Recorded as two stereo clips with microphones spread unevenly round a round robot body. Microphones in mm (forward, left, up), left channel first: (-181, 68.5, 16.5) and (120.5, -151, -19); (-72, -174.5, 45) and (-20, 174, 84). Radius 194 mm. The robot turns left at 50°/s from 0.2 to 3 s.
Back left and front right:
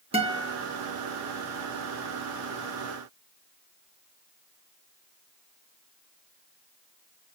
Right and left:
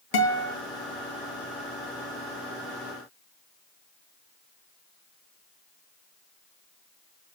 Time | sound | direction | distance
0.1 | a guitar | 110° right | 3.5 m